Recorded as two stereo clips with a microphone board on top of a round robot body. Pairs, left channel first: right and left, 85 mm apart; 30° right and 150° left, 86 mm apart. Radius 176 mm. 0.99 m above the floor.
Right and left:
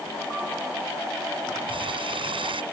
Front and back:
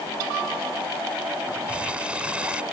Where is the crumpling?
70° left.